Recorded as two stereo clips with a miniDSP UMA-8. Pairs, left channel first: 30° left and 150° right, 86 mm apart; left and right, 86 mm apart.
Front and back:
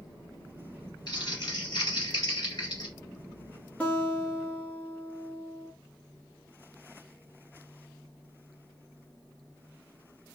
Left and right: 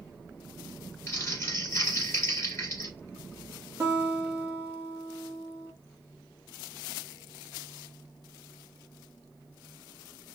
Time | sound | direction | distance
1.1 | crumpling | 40° left | 2.5 m
3.8 | a guitar | 40° right | 0.9 m